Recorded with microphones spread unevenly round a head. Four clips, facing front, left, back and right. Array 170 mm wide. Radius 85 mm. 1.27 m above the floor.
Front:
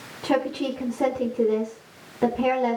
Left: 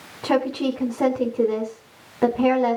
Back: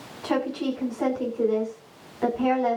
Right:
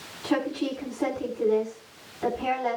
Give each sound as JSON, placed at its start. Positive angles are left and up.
{"t": 0.2, "sound": "a woman speaking", "azimuth_deg": 55, "distance_m": 5.0}